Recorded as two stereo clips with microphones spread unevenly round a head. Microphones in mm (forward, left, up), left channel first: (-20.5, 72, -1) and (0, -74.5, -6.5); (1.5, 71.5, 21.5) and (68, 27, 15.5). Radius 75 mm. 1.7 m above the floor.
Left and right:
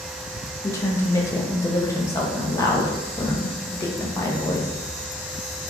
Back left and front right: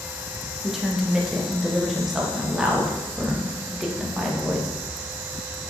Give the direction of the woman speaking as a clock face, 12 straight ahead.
10 o'clock.